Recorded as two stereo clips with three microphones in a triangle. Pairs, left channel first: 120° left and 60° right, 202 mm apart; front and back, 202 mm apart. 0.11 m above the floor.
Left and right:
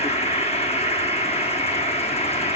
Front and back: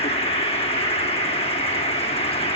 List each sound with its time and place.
0.0 s an insect: 60° left, 1.3 m